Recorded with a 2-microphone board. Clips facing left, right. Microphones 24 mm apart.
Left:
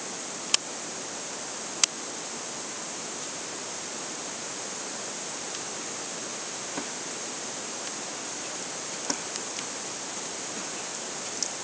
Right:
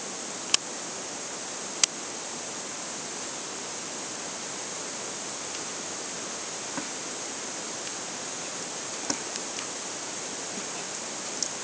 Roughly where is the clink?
No clink in this recording.